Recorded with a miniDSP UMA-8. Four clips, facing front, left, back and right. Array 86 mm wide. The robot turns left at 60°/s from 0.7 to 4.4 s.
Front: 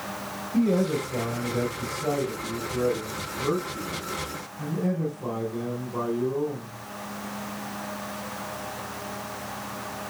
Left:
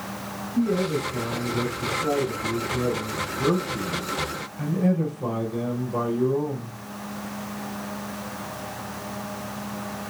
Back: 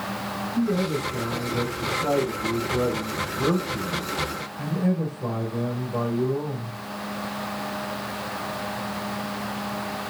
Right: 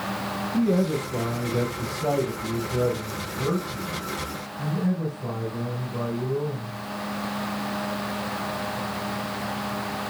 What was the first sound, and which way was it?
A man speaking, 30° right.